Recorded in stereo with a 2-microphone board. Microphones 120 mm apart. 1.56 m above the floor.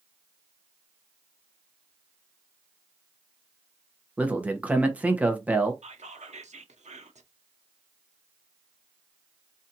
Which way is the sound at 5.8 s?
75° right (ahead or behind).